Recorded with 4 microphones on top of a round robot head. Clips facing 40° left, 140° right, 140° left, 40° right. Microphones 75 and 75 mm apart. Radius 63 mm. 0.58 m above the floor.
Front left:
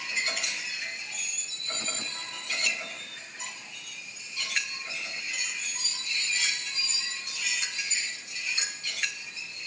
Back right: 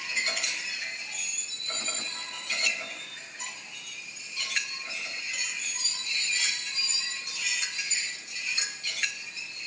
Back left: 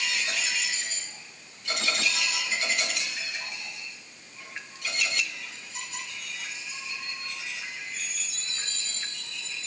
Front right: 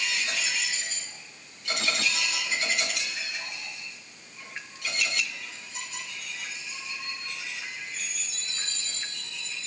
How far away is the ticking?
No ticking in this recording.